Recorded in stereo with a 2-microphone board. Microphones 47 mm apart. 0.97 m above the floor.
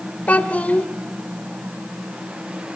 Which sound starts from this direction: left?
A child speaking, at 0.3 s.